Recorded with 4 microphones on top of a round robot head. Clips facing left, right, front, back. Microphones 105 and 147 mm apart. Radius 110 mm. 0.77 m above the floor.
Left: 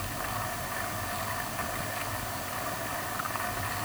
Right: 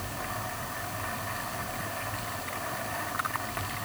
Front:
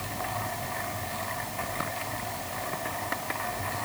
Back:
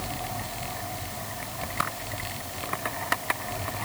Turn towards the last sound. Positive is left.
No sound to turn to.